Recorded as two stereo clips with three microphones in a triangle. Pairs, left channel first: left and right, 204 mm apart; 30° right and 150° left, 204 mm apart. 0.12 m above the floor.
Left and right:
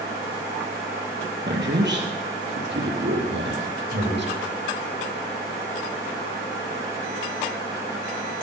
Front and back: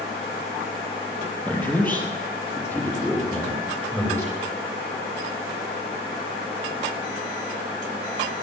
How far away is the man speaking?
About 3.5 m.